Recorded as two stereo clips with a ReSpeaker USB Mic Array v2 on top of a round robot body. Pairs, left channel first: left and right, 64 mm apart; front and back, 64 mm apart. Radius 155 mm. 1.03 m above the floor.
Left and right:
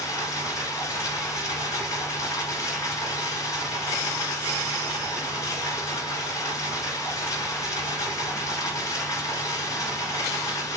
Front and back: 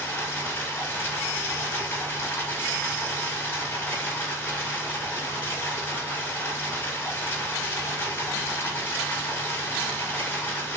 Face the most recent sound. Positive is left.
turn(degrees=50)